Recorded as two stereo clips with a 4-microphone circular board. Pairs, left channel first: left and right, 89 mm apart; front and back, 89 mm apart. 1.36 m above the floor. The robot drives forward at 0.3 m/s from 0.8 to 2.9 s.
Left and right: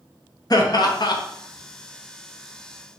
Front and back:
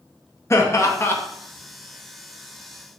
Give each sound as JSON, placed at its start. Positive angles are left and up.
{"t": 0.5, "sound": "laughter", "azimuth_deg": 55, "distance_m": 0.6}